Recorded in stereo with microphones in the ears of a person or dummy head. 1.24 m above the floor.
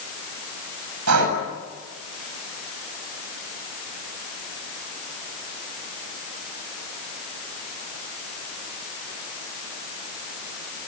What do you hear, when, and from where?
1.1 s breathing: 85° right, 7 m